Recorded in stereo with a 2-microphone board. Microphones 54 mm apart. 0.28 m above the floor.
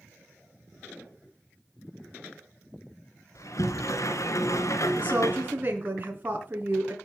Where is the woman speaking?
30° right (ahead or behind), 3.5 m.